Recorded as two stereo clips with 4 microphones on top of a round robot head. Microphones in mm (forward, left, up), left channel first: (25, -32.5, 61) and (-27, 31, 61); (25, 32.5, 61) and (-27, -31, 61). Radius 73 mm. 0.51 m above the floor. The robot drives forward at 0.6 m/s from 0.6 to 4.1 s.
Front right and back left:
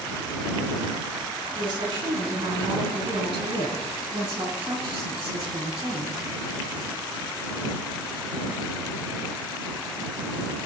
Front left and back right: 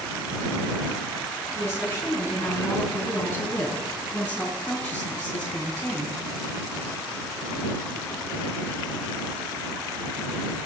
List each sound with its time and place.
1.6 s a woman speaking: 110° left, 5 m; by 6.2 s 125° left, 5.5 m